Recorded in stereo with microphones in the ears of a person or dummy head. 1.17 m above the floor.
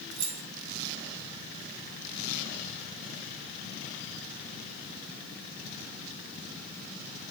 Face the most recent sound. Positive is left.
turn(degrees=-70)  # may be behind; listen again after turning